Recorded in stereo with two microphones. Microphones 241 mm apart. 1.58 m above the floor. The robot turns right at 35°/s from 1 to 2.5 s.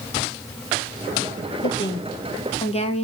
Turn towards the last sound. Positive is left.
turn(degrees=155)